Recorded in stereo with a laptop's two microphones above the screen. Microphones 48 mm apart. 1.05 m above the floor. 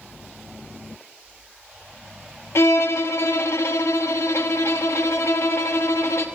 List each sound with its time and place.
2.5 s a violin: 65° left (ahead or behind), 0.7 m